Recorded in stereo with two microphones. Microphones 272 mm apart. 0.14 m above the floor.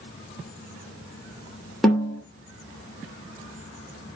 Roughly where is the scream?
No scream in this recording.